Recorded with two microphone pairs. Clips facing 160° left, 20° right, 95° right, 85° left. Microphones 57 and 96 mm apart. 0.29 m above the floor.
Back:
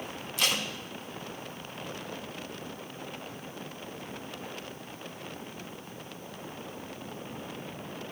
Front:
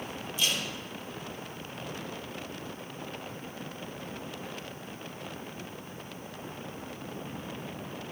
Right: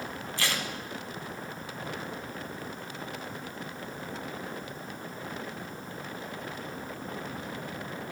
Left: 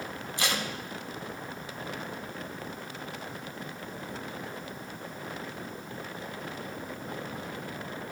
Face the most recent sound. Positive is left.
turn(degrees=155)